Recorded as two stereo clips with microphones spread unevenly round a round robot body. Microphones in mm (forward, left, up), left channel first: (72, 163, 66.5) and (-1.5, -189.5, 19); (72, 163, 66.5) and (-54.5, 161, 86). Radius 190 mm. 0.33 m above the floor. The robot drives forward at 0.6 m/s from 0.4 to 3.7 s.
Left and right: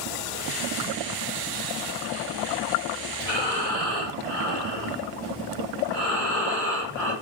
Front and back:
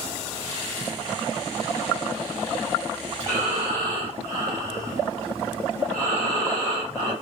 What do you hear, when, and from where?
3.2 s breathing: 160° left, 2.5 m; by 7.1 s 165° left, 2.5 m